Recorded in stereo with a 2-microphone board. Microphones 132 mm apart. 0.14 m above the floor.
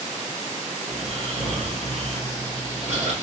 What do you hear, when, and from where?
0.9 s snoring: 50° right (ahead or behind), 2.5 m